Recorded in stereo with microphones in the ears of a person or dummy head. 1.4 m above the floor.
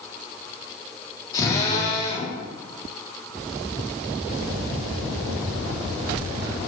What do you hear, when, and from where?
1.3 s a drill: 20° left (ahead or behind), 3.5 m